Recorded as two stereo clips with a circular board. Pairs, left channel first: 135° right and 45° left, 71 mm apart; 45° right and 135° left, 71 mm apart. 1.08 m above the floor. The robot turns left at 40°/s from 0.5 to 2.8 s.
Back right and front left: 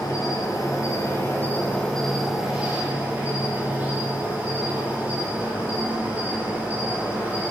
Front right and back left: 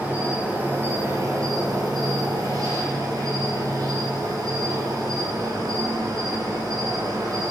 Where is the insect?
160° right, 2.5 m; by 7.5 s 110° left, 2.5 m.